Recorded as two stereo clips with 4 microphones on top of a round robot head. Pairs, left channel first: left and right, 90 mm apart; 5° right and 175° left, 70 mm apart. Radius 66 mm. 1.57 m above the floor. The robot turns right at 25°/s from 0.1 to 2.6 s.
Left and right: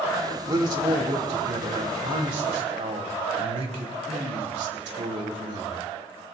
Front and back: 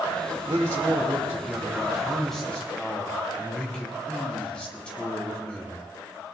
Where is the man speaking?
135° right, 2.5 m; by 5.8 s 85° right, 2.5 m.